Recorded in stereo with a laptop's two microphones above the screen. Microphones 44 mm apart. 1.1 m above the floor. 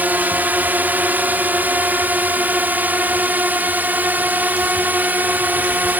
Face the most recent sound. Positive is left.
turn(degrees=-45)  # may be behind; listen again after turning